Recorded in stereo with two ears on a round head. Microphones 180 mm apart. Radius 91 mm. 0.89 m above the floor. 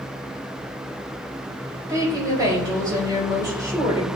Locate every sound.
1.9 s a woman speaking: 20° right (ahead or behind), 4.5 m